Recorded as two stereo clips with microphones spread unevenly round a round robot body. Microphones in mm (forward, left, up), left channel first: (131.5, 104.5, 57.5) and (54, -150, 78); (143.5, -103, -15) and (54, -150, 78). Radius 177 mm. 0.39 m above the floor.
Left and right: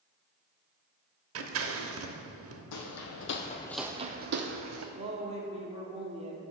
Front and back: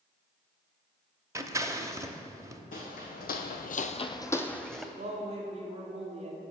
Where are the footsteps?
55° left, 1.0 m; by 4.8 s 80° right, 1.2 m.